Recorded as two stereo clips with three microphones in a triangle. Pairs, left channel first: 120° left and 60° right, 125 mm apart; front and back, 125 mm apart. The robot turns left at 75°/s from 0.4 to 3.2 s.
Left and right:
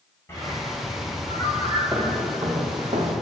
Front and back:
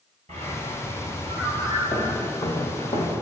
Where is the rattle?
I don't hear a rattle.